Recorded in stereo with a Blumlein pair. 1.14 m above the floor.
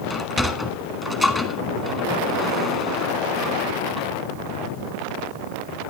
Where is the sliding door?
10° left, 1.5 m.